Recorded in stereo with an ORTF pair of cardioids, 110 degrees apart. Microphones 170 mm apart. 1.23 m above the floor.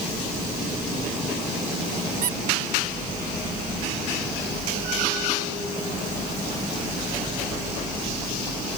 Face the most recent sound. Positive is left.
turn(degrees=-55)